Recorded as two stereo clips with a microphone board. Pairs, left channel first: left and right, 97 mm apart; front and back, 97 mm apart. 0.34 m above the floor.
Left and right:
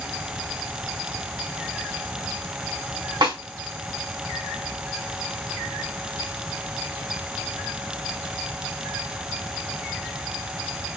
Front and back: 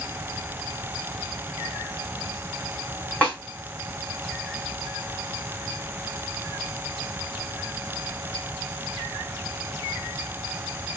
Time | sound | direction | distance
3.2 | a snare drum | 75° right | 2.5 m